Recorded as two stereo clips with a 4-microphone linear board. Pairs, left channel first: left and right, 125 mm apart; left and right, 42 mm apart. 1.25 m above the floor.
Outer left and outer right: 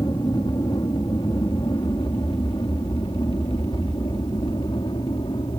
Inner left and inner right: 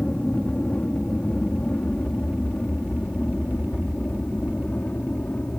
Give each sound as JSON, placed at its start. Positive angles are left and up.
{"t": 0.0, "sound": "an aircraft", "side_deg": 35}